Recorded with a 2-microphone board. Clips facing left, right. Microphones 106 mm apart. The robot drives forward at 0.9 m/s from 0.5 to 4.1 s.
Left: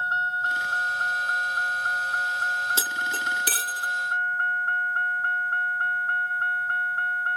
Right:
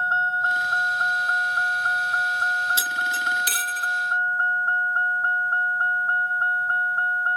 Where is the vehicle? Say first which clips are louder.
Right 3 dB; 30° right (ahead or behind).